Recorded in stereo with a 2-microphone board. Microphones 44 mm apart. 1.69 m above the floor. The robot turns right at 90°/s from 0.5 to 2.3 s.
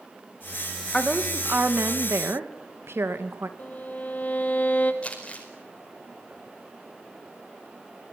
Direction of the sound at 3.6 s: 40° left (ahead or behind).